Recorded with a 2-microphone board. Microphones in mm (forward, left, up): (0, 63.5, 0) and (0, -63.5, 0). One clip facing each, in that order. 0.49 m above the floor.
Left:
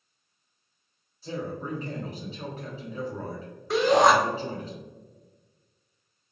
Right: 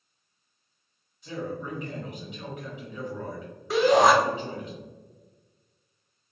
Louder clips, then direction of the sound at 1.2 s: Left 1 dB; 35° left (ahead or behind).